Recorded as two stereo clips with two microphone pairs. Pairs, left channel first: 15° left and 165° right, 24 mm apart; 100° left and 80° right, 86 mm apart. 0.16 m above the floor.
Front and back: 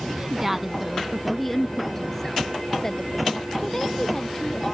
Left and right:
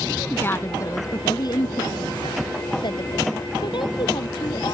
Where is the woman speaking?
150° left; by 4.8 s 80° left.